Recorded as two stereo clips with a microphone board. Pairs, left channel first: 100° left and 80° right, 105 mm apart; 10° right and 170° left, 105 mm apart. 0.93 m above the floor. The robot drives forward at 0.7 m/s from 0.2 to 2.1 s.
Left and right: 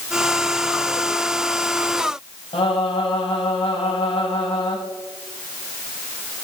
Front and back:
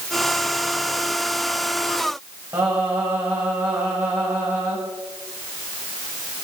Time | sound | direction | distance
2.5 | singing | 105° left | 5.5 m